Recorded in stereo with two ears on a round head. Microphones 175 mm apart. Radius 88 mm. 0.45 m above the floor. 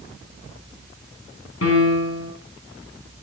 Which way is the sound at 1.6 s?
70° left (ahead or behind).